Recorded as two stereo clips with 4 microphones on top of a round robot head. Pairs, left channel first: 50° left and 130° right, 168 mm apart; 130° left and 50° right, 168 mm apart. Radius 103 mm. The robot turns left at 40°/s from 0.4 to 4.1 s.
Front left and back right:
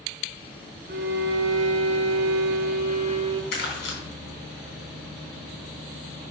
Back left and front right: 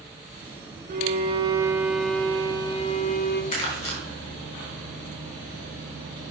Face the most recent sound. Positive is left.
turn(degrees=50)